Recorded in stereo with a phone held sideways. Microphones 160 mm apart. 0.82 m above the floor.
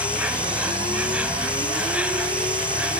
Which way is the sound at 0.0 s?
10° right (ahead or behind).